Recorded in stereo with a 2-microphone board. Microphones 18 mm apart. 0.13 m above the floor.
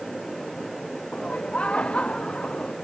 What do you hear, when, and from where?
1.1 s laughter: 75° left (ahead or behind)